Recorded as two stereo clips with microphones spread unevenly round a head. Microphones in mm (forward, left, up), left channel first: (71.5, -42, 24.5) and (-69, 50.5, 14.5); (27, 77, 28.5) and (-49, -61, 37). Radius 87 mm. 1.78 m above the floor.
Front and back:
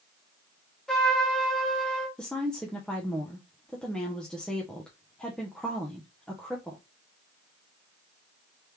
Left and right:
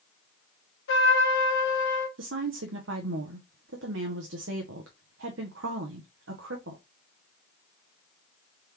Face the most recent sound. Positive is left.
turn(degrees=-120)